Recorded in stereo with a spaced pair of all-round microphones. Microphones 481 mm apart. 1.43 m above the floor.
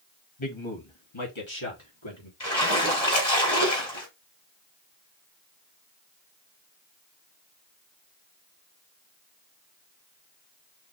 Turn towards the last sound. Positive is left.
turn(degrees=55)  # may be behind; listen again after turning